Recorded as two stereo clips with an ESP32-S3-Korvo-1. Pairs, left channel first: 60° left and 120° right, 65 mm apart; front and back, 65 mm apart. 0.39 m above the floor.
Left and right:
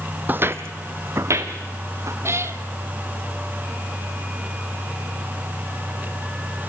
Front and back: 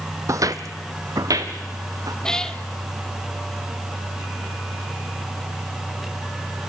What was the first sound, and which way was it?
Footsteps, 175° right.